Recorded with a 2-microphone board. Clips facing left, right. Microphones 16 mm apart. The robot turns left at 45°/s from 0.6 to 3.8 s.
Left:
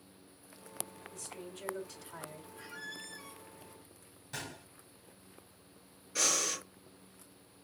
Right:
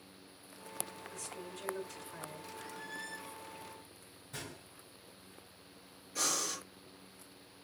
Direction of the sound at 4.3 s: 65° left (ahead or behind).